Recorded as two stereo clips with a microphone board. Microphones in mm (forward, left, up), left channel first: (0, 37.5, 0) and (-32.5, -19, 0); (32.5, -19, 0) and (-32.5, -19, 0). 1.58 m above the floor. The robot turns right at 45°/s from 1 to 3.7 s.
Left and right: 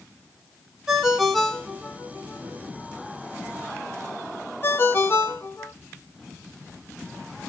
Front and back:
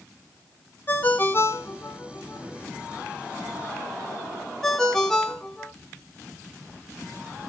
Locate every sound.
0.9 s a ringtone: 45° right, 0.6 m; by 5.7 s 80° left, 0.6 m